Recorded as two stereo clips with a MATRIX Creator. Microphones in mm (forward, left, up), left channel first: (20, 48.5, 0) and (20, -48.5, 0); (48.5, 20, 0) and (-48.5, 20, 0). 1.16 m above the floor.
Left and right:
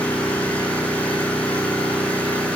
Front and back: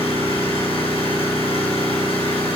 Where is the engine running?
15° left, 6.5 m.